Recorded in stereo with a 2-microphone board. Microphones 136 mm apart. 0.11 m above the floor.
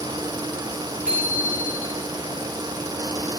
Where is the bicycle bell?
75° right (ahead or behind), 9 m.